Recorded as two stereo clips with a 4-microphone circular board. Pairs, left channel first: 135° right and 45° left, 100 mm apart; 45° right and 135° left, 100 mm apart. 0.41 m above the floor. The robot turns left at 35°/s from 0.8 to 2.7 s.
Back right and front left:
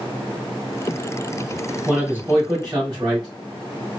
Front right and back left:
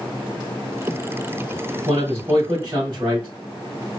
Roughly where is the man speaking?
Behind left.